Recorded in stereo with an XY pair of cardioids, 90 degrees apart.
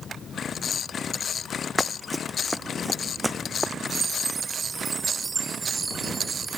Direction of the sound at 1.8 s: Straight ahead.